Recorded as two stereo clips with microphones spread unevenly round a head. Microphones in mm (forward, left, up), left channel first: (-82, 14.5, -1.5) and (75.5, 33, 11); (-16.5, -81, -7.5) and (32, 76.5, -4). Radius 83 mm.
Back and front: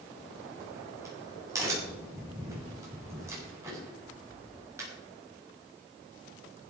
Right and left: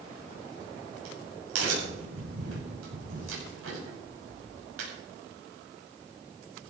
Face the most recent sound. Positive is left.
turn(degrees=80)